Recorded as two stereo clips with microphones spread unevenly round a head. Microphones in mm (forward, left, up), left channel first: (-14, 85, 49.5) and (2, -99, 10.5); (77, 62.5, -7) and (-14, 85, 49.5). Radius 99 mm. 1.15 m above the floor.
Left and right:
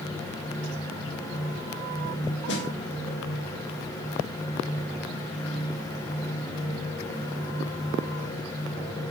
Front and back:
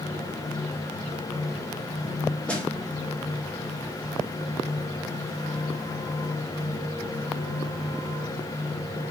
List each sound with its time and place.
2.5 s a snare drum: 60° left, 2.5 m